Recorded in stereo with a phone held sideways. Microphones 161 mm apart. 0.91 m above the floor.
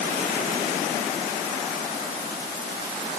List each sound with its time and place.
Only background noise.